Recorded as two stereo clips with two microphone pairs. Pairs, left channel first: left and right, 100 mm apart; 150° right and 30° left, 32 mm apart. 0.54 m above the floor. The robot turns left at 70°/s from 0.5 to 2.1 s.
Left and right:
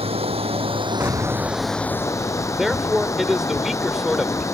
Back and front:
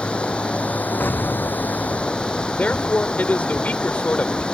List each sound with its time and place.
0.0 s running water: 100° right; by 4.5 s 150° left
1.0 s an explosion: 155° right; by 2.7 s 130° left
2.5 s a man speaking: 175° right